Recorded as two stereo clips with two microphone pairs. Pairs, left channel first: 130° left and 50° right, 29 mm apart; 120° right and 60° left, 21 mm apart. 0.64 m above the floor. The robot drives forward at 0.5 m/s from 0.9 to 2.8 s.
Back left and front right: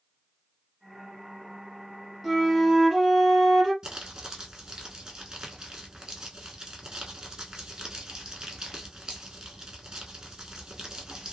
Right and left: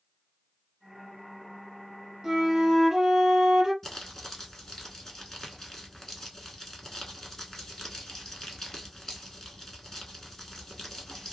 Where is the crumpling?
65° right, 0.9 m.